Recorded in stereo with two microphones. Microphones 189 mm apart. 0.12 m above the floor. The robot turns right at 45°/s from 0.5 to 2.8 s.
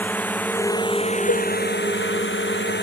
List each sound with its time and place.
0.0 s a drone: 10° left; by 2.8 s 115° left
1.3 s a cowbell: 80° left; by 1.5 s 75° left (ahead or behind)